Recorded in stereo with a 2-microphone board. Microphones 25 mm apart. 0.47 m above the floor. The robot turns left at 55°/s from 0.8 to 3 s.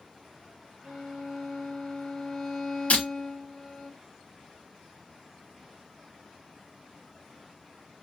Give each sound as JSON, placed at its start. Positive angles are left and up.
{"t": 0.8, "sound": "a violin", "azimuth_deg": -105, "distance_m": 1.5}
{"t": 2.9, "sound": "breaking glass", "side_deg": 75, "distance_m": 1.4}